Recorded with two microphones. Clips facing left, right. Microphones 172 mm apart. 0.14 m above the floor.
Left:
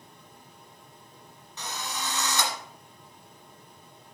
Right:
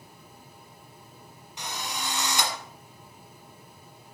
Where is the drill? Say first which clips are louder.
Even; 15° right (ahead or behind), 1.8 m.